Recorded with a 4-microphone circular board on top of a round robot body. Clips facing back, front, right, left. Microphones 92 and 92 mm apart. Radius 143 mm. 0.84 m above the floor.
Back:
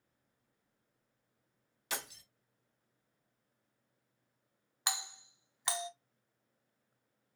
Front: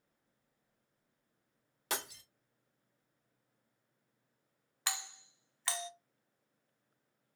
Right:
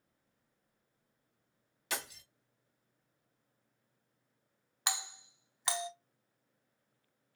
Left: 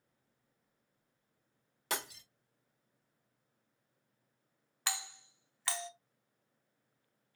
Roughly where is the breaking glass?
Ahead left.